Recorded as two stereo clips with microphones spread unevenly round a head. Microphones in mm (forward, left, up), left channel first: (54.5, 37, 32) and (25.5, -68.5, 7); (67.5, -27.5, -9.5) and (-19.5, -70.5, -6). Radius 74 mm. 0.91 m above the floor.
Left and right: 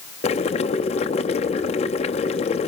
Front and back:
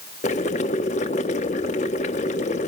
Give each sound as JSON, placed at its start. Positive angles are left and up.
{"t": 0.2, "sound": "boiling", "azimuth_deg": 45, "distance_m": 0.9}